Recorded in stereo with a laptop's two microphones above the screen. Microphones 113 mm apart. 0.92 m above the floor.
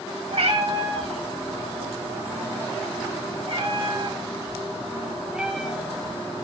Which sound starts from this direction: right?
A cat meowing, at 0.3 s.